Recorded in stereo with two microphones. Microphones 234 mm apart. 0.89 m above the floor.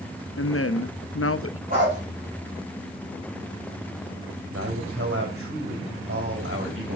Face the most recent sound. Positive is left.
turn(degrees=-65)  # may be behind; listen again after turning